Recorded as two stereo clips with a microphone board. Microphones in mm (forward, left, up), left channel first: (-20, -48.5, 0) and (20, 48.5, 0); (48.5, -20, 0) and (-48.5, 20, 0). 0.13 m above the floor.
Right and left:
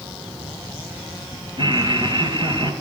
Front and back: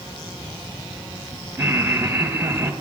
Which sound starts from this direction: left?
Laughter, at 1.6 s.